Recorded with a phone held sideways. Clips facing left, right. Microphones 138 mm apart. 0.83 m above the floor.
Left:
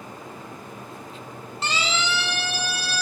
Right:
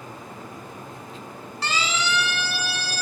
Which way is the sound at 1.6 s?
25° left (ahead or behind).